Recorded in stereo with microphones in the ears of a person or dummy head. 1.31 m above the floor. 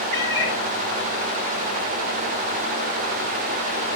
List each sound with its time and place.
0.1 s a cat meowing: 60° right (ahead or behind), 5.5 m